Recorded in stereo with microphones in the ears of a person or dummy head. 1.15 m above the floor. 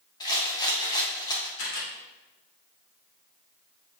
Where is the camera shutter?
80° left, 3 m.